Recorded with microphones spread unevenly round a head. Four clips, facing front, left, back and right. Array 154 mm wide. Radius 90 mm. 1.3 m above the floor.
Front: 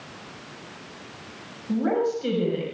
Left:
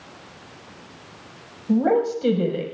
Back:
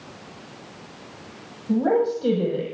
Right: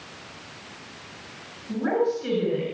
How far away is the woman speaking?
About 5.5 m.